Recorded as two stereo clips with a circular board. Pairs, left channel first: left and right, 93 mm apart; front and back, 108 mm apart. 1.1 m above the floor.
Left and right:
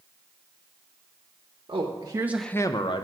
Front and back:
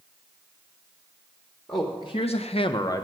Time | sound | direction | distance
1.7 | a man speaking | 60° right | 0.9 m